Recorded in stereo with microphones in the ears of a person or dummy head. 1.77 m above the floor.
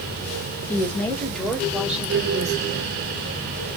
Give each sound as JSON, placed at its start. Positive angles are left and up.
{"t": 0.7, "sound": "a woman speaking", "side_deg": 20, "distance_m": 2.5}